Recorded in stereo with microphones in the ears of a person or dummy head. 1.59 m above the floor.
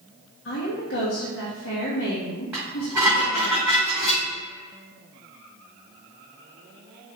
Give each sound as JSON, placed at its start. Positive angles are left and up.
{"t": 0.5, "sound": "a woman speaking", "side_deg": 50, "distance_m": 1.3}
{"t": 2.5, "sound": "dishes clattering", "side_deg": -5, "distance_m": 2.0}